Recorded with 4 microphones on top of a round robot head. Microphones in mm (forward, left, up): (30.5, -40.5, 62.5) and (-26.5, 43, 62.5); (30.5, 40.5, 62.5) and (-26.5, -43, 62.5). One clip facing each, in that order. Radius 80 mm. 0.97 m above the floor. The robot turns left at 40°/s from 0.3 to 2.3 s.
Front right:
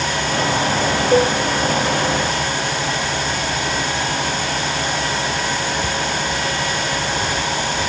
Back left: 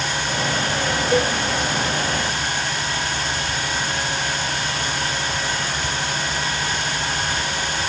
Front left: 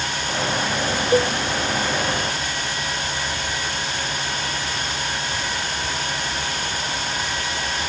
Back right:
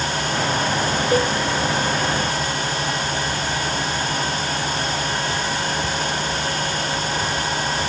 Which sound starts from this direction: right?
A cowbell, at 1.1 s.